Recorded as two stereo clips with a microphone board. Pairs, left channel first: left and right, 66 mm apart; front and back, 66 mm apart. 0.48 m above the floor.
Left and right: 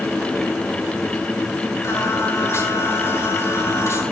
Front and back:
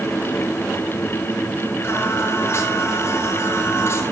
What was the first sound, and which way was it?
Singing, 45° left.